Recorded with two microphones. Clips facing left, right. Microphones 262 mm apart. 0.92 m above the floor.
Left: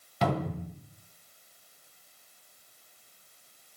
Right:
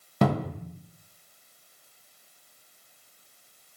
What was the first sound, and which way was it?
A cupboard door, 55° right (ahead or behind).